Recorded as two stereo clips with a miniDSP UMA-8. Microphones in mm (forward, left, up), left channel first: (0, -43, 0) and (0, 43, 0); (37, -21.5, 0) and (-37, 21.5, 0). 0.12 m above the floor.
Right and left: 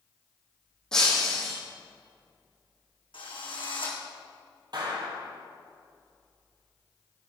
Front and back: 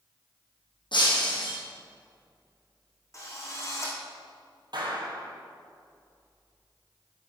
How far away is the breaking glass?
About 3.5 m.